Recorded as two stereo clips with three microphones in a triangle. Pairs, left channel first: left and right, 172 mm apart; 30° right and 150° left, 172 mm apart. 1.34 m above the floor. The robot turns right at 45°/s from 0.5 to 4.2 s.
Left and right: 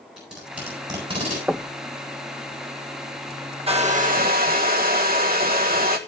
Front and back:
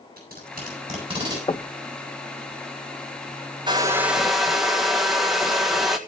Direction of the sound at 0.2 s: 175° right.